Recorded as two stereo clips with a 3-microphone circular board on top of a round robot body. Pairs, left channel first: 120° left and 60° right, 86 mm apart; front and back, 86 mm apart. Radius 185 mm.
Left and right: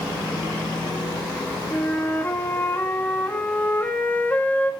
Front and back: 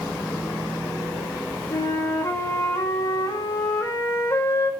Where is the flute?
50° left, 2.0 m.